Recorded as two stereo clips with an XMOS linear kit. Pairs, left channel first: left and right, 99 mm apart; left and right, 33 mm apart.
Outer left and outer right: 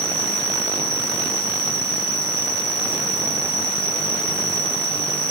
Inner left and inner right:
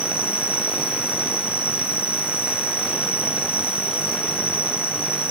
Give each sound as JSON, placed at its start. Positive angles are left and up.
{"t": 0.0, "sound": "an insect", "side_deg": -35, "distance_m": 4.0}